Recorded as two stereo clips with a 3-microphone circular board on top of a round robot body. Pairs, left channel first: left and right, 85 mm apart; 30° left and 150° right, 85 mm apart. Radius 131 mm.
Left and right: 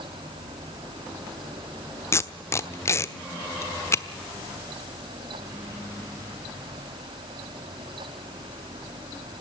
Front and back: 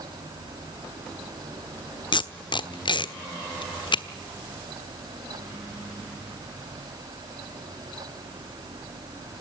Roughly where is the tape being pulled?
Ahead left.